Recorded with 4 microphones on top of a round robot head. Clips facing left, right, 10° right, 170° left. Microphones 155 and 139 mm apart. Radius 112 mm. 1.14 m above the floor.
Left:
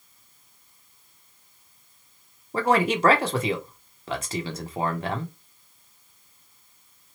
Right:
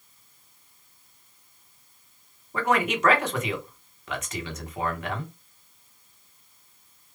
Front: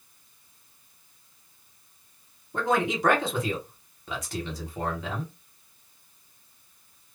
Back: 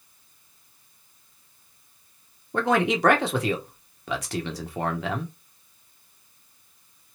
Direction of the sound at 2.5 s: 150° left.